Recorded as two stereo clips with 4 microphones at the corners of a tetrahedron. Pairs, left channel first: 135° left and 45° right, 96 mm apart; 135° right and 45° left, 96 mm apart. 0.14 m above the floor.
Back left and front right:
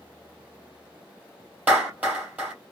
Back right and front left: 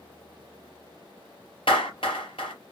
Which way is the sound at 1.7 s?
115° right.